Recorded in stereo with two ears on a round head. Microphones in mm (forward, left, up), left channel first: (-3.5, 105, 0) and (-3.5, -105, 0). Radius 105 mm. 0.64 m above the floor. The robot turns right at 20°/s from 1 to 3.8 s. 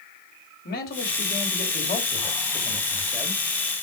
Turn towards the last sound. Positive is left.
turn(degrees=-170)